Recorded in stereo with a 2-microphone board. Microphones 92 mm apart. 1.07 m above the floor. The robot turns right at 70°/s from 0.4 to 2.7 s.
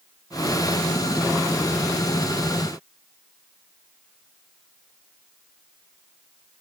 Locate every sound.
Only background noise.